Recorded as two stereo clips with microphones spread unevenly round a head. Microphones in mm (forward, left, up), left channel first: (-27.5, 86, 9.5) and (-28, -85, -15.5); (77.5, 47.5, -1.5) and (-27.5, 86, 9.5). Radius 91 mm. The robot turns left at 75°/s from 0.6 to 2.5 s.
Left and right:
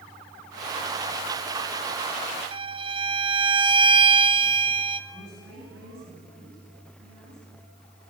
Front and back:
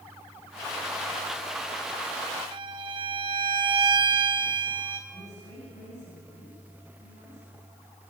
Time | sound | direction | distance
2.5 | a violin | 150° right | 1.0 m
5.1 | a woman speaking | 70° right | 9 m